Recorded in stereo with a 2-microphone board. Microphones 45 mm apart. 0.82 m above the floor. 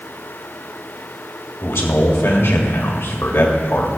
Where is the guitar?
No guitar in this recording.